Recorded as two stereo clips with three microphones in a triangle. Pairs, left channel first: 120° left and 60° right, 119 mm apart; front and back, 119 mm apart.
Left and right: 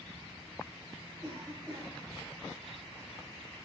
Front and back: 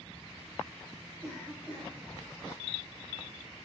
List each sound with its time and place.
1.2 s a cough: 100° right, 3 m